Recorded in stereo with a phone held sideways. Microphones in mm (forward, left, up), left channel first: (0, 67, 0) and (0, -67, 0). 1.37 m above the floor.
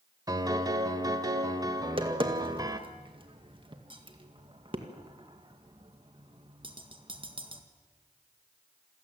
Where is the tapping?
40° right (ahead or behind), 1.9 m.